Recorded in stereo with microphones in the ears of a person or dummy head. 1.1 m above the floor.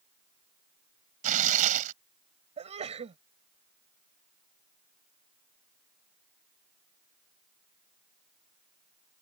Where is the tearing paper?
45° right (ahead or behind).